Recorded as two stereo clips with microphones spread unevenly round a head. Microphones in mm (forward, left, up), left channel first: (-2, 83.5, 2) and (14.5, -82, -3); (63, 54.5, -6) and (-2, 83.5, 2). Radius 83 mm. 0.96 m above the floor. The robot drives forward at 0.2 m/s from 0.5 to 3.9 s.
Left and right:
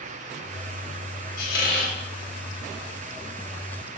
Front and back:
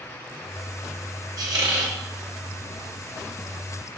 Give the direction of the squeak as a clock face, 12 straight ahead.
8 o'clock.